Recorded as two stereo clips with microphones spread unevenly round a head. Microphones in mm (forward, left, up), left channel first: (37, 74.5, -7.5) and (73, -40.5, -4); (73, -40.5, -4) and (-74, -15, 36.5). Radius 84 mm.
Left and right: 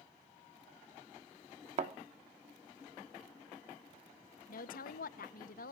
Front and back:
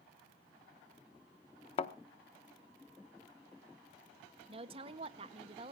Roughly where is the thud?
Ahead right.